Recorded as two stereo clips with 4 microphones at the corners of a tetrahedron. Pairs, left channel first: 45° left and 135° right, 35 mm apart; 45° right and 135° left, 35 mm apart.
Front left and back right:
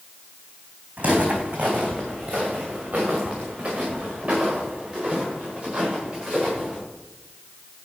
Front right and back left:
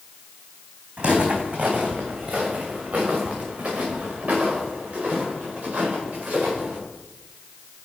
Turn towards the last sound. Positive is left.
turn(degrees=155)